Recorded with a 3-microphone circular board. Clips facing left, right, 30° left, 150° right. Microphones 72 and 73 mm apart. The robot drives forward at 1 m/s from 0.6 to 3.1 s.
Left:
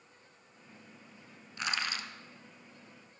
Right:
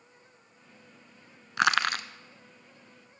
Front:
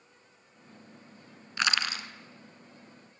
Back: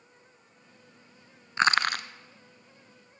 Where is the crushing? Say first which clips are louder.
Right 11 dB, back 6 dB; 85° right, 0.6 m; by 2.0 s 125° right, 0.8 m.